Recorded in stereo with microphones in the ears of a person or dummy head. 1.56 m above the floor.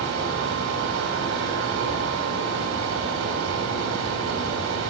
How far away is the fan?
About 4.5 m.